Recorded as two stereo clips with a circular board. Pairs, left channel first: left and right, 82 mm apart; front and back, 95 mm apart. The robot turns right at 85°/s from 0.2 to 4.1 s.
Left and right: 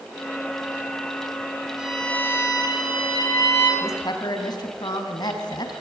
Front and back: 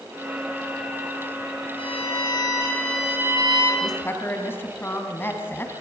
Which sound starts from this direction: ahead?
A violin, at 1.8 s.